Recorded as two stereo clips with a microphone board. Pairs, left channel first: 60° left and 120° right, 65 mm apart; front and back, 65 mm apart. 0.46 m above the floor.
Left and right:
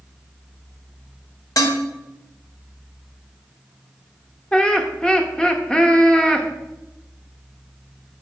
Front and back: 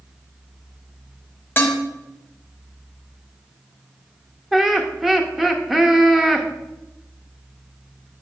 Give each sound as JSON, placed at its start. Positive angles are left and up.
{"t": 1.6, "sound": "dishes clattering", "azimuth_deg": 60, "distance_m": 1.2}
{"t": 4.5, "sound": "laughter", "azimuth_deg": 105, "distance_m": 0.7}